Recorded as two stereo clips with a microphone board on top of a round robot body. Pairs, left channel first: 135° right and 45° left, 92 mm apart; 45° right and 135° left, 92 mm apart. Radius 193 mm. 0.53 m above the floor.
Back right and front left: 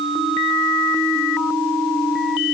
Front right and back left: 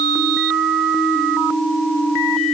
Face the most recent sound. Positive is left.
No sound to turn to.